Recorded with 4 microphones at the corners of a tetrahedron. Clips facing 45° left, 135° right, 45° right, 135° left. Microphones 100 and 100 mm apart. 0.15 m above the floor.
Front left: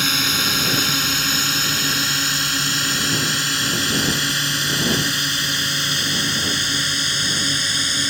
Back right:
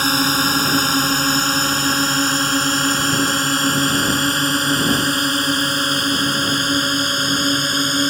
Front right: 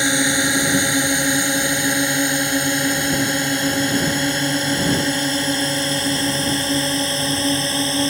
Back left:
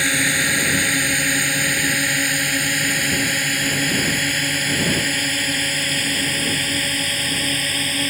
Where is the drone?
105° right.